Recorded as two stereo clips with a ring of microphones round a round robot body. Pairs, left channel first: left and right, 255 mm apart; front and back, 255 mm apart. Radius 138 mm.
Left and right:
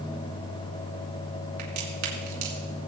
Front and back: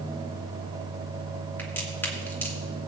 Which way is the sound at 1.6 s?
80° right.